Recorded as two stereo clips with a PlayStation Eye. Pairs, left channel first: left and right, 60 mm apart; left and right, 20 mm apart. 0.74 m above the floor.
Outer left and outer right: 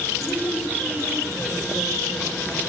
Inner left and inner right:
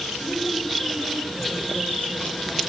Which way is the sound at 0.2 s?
45° left (ahead or behind).